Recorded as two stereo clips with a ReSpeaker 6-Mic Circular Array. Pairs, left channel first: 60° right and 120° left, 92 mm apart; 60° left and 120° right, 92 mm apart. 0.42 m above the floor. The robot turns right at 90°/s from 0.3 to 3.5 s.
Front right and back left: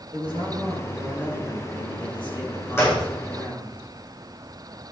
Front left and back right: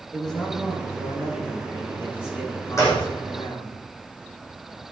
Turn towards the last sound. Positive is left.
turn(degrees=70)